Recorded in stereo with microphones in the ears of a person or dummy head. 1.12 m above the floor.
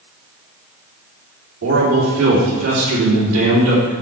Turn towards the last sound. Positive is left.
turn(degrees=-70)  # may be behind; listen again after turning